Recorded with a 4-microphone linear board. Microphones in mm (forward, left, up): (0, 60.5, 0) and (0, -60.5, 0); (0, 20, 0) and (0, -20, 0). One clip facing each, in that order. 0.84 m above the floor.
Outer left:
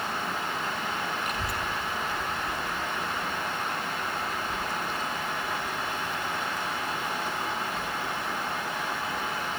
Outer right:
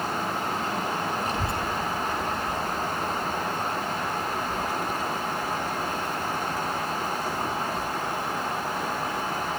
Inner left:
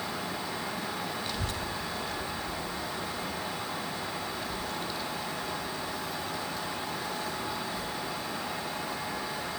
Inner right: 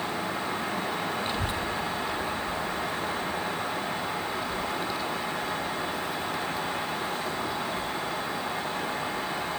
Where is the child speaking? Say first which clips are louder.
Outer right 4 dB, inner right 5 dB; 30° right (ahead or behind), 0.6 m; by 9.6 s 10° right (ahead or behind), 10.5 m.